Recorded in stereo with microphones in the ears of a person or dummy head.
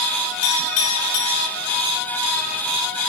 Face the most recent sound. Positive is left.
turn(degrees=50)  # may be behind; listen again after turning